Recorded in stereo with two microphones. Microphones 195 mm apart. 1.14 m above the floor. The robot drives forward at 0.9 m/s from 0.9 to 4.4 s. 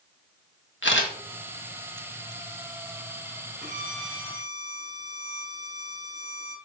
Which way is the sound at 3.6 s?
75° right (ahead or behind).